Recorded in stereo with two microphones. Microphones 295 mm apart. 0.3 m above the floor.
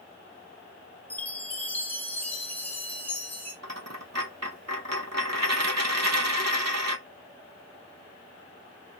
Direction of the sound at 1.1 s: 5° left (ahead or behind).